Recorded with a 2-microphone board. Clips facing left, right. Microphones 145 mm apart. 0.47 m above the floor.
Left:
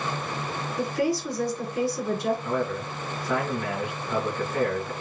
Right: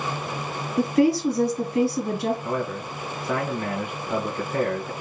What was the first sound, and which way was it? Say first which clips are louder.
A woman speaking: right 7 dB; 75° right (ahead or behind).